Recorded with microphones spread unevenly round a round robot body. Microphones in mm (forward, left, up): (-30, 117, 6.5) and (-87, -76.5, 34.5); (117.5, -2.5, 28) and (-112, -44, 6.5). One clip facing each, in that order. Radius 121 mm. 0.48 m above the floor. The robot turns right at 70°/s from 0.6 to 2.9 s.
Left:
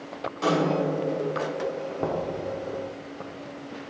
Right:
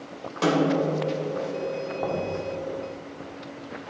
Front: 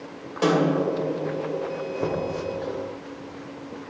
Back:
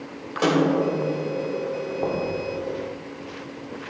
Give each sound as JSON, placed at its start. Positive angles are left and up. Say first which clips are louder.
{"t": 0.4, "sound": "a snare drum", "louder": "right 2 dB, back 1 dB", "azimuth_deg": -90, "distance_m": 2.5}
{"t": 2.0, "sound": "knocking", "louder": "left 1 dB, even", "azimuth_deg": 70, "distance_m": 1.0}